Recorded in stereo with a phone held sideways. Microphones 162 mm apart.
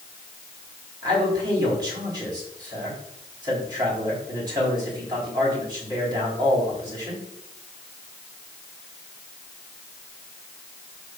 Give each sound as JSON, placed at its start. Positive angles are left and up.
{"t": 1.0, "sound": "a man speaking", "side_deg": -25, "distance_m": 4.0}